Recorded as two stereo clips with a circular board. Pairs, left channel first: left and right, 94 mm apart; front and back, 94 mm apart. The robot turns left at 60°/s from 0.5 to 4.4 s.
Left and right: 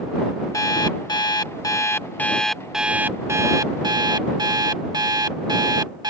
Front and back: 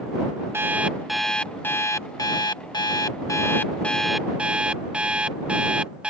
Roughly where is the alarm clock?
Behind left.